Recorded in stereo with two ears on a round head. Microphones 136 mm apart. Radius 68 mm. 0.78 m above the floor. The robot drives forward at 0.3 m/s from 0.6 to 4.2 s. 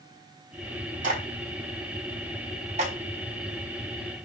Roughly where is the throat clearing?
I don't hear throat clearing.